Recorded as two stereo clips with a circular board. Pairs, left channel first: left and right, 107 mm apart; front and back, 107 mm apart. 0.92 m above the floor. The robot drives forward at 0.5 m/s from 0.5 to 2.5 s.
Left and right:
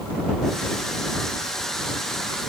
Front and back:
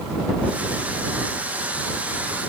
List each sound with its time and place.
Only background noise.